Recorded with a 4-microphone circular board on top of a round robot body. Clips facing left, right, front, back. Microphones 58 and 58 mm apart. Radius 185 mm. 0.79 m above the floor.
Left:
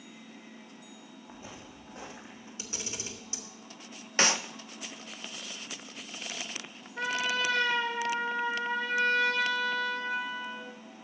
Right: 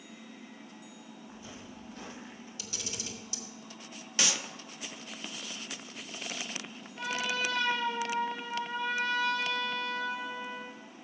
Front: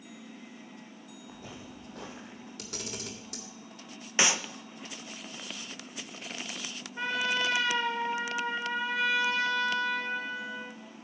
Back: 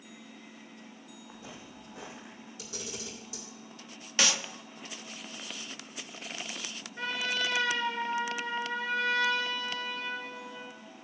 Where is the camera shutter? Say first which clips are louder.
Left 2 dB, front 1 dB; 25° left, 1.8 m.